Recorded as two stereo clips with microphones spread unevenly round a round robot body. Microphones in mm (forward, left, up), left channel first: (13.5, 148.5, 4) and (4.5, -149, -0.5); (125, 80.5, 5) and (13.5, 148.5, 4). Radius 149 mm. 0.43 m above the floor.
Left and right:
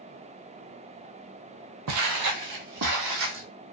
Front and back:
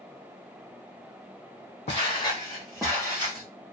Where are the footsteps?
60° right, 0.7 m; by 3.5 s 140° right, 1.1 m.